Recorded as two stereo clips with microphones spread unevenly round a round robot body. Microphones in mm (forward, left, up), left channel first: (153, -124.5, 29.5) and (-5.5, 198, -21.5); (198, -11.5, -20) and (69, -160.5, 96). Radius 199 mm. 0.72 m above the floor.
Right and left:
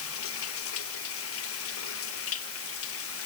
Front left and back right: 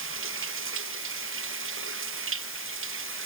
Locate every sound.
0.0 s running water: 125° right